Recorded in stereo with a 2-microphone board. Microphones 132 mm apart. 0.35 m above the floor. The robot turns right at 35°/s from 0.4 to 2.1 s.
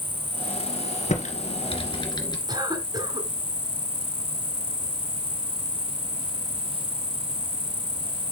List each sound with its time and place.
0.0 s an insect: 35° left, 0.8 m; by 8.3 s 95° left, 0.8 m
1.1 s typing on a keyboard: 65° left (ahead or behind), 2.5 m; by 2.4 s 35° left (ahead or behind), 2.5 m
2.5 s a cough: 35° right (ahead or behind), 2.5 m